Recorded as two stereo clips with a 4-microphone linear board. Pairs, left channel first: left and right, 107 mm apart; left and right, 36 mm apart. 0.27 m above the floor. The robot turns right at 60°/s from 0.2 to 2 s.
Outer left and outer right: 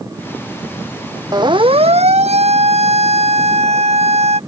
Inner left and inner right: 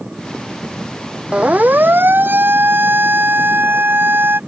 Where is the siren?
35° right (ahead or behind); by 4.4 s 80° right.